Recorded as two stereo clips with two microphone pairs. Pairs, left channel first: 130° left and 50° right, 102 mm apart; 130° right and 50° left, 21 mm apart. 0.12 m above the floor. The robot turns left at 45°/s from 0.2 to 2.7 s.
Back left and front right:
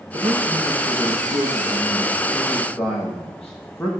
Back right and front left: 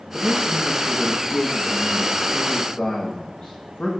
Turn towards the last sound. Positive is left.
turn(degrees=-145)